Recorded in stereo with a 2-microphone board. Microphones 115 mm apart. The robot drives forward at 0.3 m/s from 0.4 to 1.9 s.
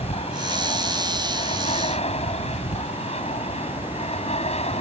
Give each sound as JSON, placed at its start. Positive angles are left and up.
{"t": 0.0, "sound": "an aircraft", "side_deg": 65}